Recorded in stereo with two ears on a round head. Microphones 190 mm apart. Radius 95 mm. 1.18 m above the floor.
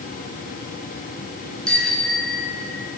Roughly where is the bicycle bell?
Centre.